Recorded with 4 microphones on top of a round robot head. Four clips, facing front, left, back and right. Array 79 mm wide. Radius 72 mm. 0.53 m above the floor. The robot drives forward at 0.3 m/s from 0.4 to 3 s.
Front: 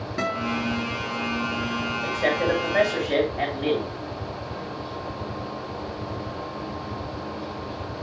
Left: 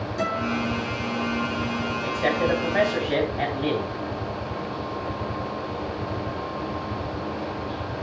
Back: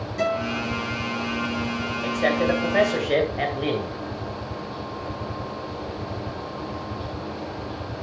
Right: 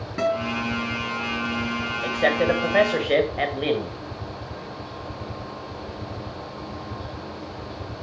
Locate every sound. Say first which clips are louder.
0.2 s a guitar: right 2 dB, back 2 dB; 50° right, 5 m
2.0 s a man speaking: right 3 dB, back 2 dB; 105° right, 2.5 m; by 4.0 s 110° right, 3 m